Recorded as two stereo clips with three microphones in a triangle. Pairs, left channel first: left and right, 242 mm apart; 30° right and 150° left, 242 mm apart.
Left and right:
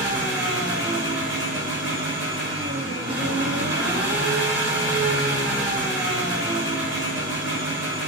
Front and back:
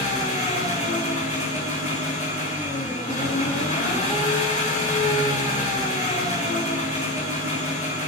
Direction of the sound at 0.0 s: 85° right.